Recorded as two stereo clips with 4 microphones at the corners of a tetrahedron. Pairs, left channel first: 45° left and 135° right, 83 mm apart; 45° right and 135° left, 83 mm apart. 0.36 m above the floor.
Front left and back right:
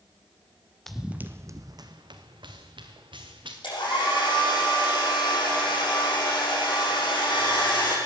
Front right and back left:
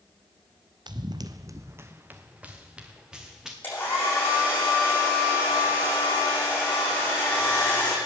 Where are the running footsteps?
130° left, 0.7 m; by 3.5 s 140° right, 2.5 m.